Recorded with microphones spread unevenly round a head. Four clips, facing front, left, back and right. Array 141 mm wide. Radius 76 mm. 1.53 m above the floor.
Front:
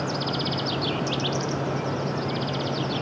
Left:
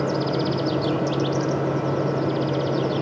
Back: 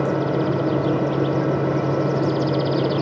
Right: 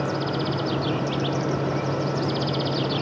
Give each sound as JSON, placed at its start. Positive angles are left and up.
{"t": 0.0, "sound": "a fan", "azimuth_deg": 160}